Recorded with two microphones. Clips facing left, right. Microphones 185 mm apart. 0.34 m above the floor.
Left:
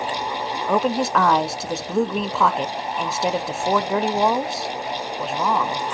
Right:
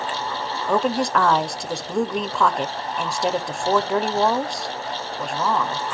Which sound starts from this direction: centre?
A woman speaking, at 0.7 s.